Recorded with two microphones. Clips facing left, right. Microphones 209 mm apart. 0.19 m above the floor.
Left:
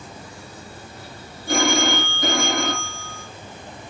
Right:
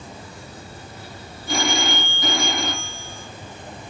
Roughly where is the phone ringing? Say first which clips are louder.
Left 4 dB; left.